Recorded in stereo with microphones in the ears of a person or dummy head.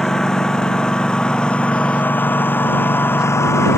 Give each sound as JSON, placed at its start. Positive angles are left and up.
{"t": 0.0, "sound": "a lawn mower", "side_deg": 0}